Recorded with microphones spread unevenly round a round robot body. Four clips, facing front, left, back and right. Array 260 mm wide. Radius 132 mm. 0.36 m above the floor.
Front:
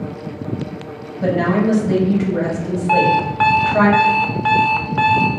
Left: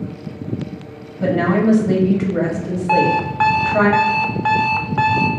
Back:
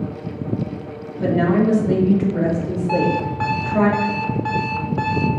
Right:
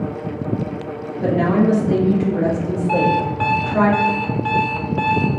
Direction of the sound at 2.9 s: 30° left.